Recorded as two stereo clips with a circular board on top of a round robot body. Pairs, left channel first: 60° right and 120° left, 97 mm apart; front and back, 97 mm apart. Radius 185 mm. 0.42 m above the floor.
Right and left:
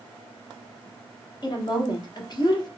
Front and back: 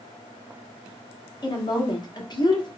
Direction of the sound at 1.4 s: 30° right.